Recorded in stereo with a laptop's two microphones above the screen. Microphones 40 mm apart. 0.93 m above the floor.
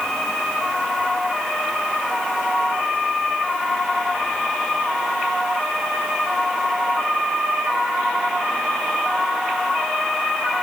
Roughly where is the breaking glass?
No breaking glass in this recording.